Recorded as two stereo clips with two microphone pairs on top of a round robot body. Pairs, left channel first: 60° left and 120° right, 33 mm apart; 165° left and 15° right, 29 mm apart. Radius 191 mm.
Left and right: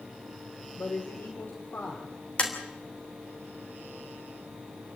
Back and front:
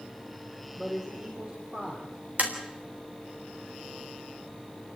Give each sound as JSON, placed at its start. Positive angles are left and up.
{"t": 0.8, "sound": "a man speaking", "azimuth_deg": 50, "distance_m": 3.5}
{"t": 2.4, "sound": "tapping", "azimuth_deg": 10, "distance_m": 3.5}